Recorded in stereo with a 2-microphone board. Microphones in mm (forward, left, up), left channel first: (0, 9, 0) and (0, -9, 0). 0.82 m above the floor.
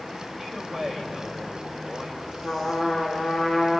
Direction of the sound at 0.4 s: 35° right (ahead or behind).